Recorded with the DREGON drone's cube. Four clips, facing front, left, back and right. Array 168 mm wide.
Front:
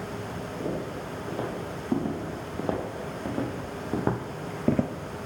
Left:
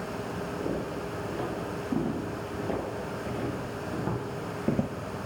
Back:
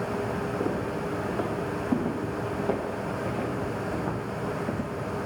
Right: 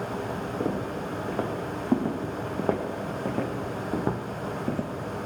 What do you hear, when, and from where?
0.6 s footsteps: 80° right, 6 m; by 4.9 s 15° left, 1.5 m